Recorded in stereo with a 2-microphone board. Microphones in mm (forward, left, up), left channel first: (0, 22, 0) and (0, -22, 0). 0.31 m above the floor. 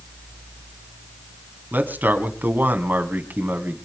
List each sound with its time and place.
1.7 s a man speaking: 50° right (ahead or behind), 2 m